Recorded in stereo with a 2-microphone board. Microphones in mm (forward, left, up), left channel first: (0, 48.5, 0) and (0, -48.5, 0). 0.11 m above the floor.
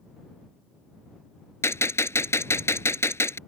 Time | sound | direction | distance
1.6 | a gunshot | 30° left (ahead or behind) | ?